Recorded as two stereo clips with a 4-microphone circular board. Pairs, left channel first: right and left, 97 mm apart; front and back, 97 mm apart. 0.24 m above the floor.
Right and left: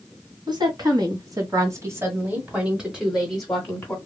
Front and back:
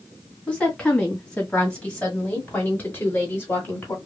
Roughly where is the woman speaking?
Left.